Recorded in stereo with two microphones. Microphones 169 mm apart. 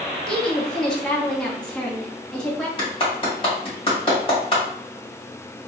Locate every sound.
0.3 s a woman speaking: 5° left (ahead or behind), 1.3 m
2.8 s a clap: 30° left (ahead or behind), 1.9 m